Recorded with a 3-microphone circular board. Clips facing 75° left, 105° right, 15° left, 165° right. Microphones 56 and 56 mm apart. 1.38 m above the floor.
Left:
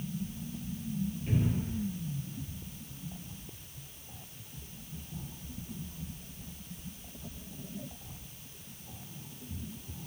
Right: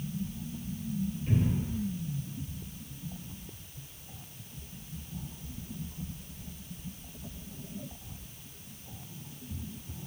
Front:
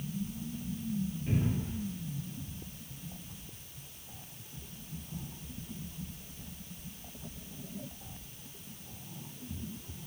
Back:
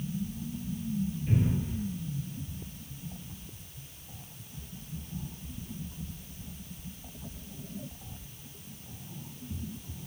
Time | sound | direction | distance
1.3 | a cupboard door | 5° right | 1.2 m